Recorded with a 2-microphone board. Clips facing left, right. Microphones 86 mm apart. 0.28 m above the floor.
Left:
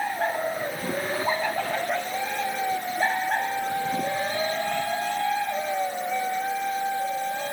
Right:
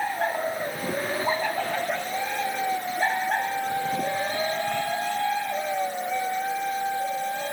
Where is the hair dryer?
No hair dryer in this recording.